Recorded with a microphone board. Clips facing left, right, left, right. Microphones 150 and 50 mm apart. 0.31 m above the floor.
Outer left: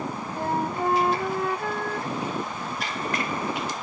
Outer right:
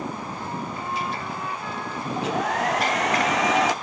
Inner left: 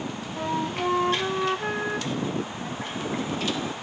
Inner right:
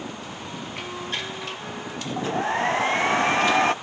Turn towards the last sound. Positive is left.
turn(degrees=-80)